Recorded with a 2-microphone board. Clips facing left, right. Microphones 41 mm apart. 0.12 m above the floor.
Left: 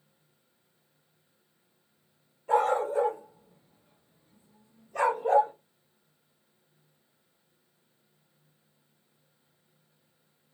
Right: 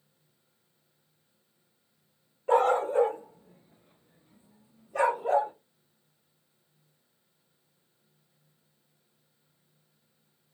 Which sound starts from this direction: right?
A dog barking, at 2.5 s.